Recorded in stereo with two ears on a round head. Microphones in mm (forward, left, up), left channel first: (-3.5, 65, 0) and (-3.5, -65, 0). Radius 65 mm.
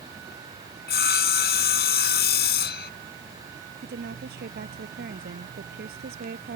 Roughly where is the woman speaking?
Right.